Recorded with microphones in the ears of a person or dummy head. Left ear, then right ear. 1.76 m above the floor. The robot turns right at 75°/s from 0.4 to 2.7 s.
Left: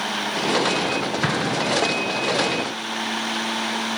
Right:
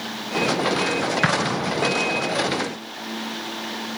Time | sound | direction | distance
1.2 | an explosion | 25° right (ahead or behind) | 1.1 m